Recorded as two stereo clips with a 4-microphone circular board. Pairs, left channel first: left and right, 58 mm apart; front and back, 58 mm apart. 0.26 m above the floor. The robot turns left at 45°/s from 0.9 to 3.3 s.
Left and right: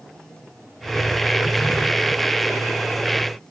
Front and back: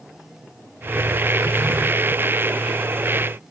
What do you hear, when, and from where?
Only background noise.